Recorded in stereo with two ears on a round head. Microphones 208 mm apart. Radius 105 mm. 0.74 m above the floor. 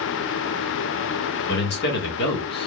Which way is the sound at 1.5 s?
50° left (ahead or behind).